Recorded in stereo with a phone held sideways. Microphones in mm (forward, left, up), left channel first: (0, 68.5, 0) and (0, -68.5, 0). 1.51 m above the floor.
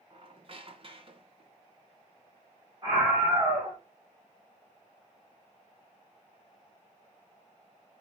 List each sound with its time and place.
0.1 s a squeak: 45° right (ahead or behind), 0.8 m
2.8 s a scream: 30° right (ahead or behind), 1.9 m